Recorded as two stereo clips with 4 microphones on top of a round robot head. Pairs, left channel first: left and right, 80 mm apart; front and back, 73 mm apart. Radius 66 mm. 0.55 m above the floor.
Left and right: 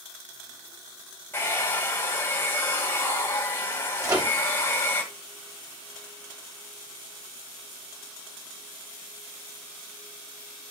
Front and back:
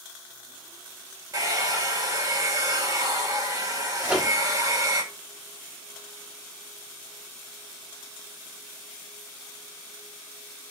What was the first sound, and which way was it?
A hair dryer, 150° left.